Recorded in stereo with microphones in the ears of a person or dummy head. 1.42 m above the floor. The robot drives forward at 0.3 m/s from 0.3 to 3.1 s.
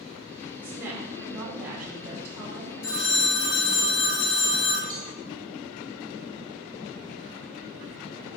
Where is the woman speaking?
20° right (ahead or behind), 2 m; by 3.8 s 15° right (ahead or behind), 3 m.